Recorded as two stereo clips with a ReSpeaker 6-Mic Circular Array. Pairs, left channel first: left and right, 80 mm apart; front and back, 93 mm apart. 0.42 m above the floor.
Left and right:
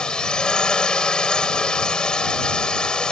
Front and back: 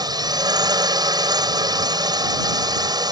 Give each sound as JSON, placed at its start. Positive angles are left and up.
{"t": 0.0, "sound": "a drone", "azimuth_deg": 165}